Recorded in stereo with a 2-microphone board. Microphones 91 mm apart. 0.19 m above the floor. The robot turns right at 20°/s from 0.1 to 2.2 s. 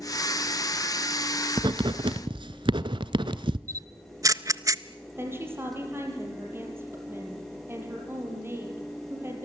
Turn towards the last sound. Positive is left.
turn(degrees=-25)  # may be behind; listen again after turning